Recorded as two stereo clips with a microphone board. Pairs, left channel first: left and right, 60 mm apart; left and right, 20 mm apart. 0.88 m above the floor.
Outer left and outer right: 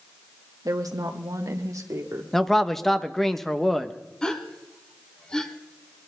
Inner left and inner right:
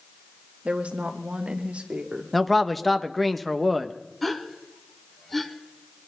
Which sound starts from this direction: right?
A woman speaking, at 0.7 s.